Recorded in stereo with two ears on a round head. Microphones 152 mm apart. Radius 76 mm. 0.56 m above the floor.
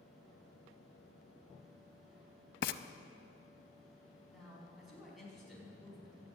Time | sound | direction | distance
2.6 | frying | 60° left (ahead or behind) | 0.6 m
4.3 | a man speaking | centre (ahead or behind) | 5 m